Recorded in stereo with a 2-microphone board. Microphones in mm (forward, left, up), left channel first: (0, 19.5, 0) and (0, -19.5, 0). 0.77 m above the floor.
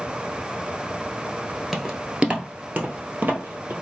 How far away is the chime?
No chime in this recording.